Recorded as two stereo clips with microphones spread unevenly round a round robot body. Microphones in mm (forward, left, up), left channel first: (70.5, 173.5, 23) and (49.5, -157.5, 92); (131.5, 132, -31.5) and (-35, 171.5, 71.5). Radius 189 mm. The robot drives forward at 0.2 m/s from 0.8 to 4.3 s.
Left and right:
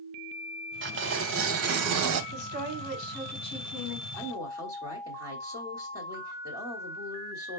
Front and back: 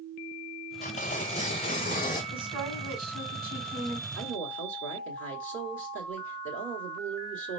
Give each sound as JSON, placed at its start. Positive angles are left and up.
{"t": 0.8, "sound": "tearing paper", "azimuth_deg": -35, "distance_m": 0.8}
{"t": 2.3, "sound": "a woman speaking", "azimuth_deg": 125, "distance_m": 4.0}
{"t": 4.2, "sound": "a woman speaking", "azimuth_deg": 175, "distance_m": 1.4}